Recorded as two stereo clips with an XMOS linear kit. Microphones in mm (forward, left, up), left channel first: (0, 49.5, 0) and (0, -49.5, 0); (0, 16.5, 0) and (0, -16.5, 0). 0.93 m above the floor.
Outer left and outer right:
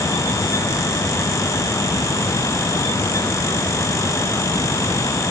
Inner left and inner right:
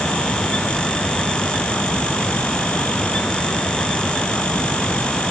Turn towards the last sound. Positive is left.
No sound to turn to.